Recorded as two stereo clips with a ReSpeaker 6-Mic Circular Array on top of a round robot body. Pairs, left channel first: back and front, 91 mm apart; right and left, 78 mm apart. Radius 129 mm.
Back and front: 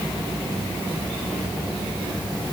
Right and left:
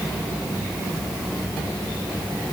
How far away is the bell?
No bell in this recording.